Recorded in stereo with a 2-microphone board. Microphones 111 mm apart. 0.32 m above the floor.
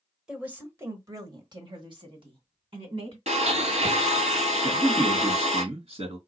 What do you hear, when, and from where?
0.3 s a woman speaking: 10° right (ahead or behind), 1.3 m; by 3.2 s 55° right (ahead or behind), 2.5 m
3.3 s a blender: 75° right (ahead or behind), 1.4 m
4.6 s a man speaking: 65° right (ahead or behind), 2.5 m